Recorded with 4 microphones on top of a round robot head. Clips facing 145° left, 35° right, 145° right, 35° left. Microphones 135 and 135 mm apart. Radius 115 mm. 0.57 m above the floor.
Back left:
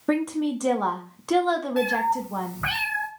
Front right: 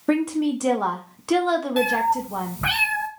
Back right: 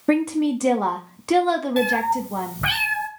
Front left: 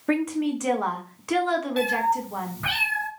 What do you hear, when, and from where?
0.1 s a woman speaking: 120° right, 1.4 m
1.8 s a cat meowing: 105° right, 1.8 m